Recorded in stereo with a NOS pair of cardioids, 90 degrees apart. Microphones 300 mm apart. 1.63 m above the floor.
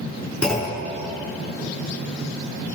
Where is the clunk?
5° left, 5 m.